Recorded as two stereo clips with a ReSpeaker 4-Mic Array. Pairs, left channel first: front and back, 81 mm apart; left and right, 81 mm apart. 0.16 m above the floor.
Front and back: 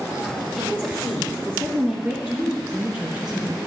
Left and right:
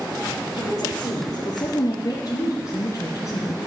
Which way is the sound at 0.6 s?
115° left.